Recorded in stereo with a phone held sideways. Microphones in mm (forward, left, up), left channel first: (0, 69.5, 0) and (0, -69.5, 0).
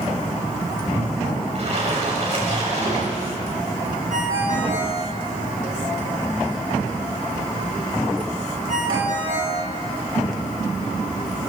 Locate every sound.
1.6 s a splash: 50° right (ahead or behind), 7.5 m
4.1 s a ringtone: 65° right (ahead or behind), 8 m